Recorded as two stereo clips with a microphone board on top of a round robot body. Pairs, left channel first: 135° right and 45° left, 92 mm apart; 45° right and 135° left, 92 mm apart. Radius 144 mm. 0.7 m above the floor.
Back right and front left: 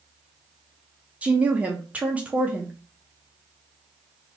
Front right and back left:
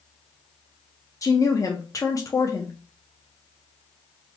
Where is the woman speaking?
25° right, 0.7 m.